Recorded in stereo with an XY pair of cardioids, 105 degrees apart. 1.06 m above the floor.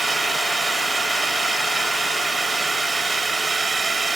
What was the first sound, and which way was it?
A drone, 25° right.